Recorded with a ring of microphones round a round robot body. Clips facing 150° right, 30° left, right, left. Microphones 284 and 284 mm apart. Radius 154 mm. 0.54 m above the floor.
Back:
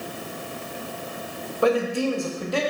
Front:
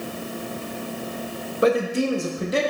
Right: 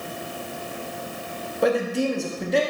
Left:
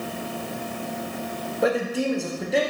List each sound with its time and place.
1.6 s a man speaking: 5° left, 0.6 m